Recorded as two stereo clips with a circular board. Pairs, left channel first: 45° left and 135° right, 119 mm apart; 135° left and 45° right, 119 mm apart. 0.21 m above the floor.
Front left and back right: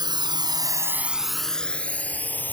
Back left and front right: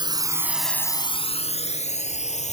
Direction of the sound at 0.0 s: 90° right.